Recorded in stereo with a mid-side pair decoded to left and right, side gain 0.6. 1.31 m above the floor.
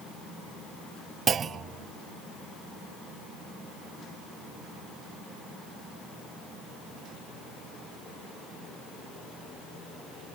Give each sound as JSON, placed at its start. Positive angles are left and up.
{"t": 1.3, "sound": "a clunk", "azimuth_deg": -35, "distance_m": 0.8}